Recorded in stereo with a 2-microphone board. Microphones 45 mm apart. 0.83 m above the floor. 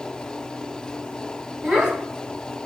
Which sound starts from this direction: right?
A child speaking, at 1.6 s.